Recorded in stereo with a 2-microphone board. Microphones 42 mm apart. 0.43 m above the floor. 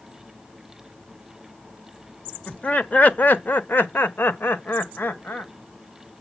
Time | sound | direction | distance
2.5 | laughter | 25° left (ahead or behind) | 1.1 m